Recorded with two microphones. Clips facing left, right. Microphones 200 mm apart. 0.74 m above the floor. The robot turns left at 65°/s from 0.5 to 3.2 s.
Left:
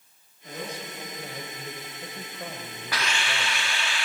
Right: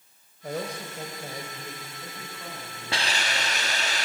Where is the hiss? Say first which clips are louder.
Right 1 dB; 25° right (ahead or behind), 1.5 m; by 4.1 s 40° right (ahead or behind), 1.5 m.